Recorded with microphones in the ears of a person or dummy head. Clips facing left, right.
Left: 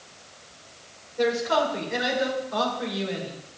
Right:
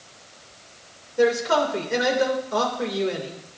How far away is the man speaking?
About 2.5 m.